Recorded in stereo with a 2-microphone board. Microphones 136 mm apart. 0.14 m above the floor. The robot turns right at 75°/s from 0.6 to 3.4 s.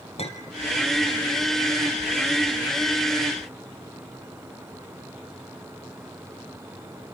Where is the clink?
50° left (ahead or behind), 2.5 m.